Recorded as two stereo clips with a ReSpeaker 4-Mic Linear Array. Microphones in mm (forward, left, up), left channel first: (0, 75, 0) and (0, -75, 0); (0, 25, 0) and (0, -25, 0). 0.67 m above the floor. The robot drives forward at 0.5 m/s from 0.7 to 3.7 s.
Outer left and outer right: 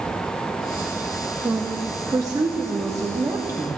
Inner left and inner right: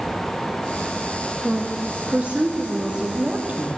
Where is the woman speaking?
20° right (ahead or behind), 0.8 m; by 3.7 s 15° right (ahead or behind), 1.0 m.